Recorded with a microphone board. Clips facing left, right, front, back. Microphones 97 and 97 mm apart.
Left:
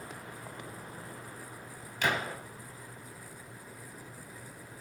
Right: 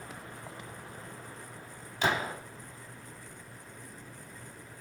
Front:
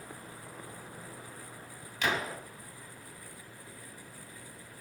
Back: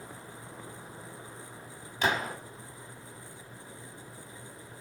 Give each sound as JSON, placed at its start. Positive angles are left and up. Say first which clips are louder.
{"t": 2.0, "sound": "a gunshot", "louder": "right 2 dB, back 3 dB", "azimuth_deg": -135, "distance_m": 1.2}